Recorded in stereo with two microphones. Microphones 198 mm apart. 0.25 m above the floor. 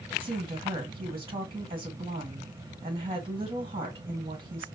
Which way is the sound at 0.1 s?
25° right (ahead or behind).